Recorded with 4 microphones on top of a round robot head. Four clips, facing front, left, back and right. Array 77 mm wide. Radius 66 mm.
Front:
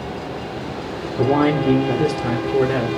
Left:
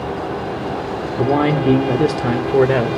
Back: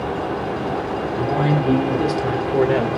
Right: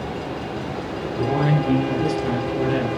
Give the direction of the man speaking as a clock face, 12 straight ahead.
10 o'clock.